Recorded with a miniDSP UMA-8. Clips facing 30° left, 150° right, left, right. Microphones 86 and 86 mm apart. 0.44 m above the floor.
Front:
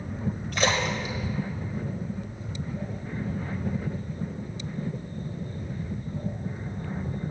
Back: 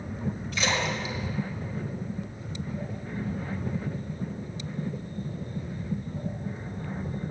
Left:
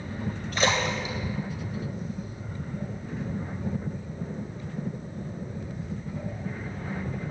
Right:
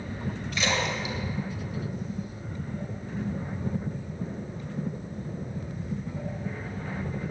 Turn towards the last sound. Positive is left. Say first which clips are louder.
# front 3 dB, left 3 dB
turn(degrees=50)